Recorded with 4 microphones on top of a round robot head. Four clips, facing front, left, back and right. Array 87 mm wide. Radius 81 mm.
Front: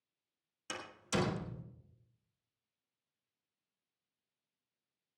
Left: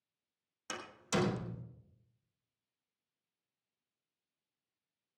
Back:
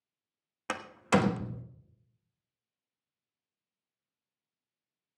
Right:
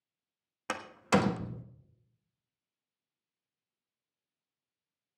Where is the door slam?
140° right, 1.2 m.